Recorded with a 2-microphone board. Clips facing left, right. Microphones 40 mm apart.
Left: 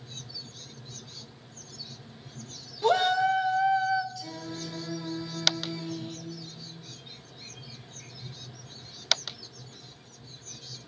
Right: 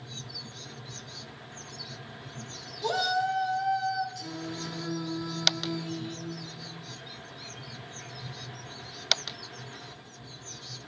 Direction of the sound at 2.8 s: 30° left (ahead or behind).